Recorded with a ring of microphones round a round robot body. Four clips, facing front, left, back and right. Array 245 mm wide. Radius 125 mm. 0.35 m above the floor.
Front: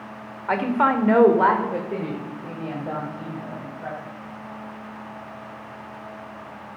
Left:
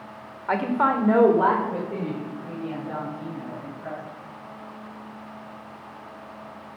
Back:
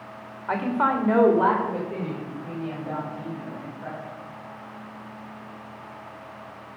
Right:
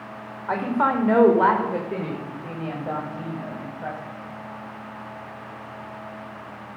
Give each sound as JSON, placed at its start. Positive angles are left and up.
{"t": 0.5, "sound": "a woman speaking", "azimuth_deg": 25, "distance_m": 1.4}